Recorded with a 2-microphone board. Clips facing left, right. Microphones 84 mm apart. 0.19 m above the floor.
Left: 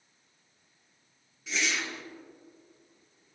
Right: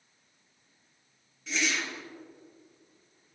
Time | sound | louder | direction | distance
1.5 | a whoosh | right 1 dB | centre (ahead or behind) | 1.7 m